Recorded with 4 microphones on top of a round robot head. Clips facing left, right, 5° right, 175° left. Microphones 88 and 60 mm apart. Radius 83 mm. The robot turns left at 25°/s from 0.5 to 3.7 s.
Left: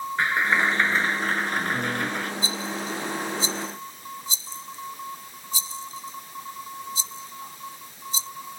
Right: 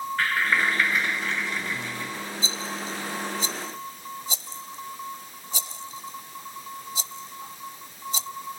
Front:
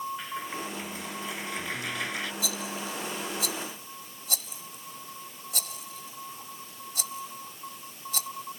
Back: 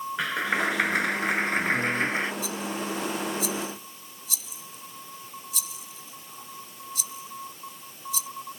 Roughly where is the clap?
Behind.